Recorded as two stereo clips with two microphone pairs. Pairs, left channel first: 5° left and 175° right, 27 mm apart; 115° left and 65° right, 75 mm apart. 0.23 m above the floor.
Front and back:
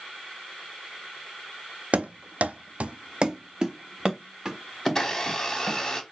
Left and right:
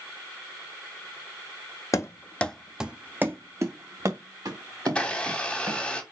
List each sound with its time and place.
1.9 s running footsteps: 160° left, 0.5 m; by 5.8 s 95° right, 1.9 m
4.8 s a blender: 55° left, 1.0 m